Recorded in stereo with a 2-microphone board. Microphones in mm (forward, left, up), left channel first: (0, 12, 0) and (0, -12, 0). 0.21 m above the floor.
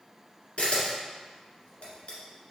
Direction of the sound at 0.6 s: 65° left (ahead or behind).